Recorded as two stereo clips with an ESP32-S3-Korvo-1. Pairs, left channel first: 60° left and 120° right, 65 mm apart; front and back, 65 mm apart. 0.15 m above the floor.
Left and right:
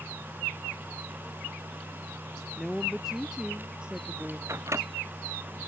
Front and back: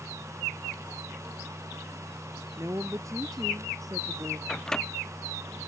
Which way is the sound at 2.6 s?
150° left.